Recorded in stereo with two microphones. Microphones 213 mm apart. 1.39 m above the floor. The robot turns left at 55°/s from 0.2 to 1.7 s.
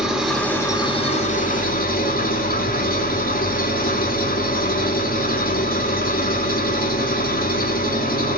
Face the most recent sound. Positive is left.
turn(degrees=100)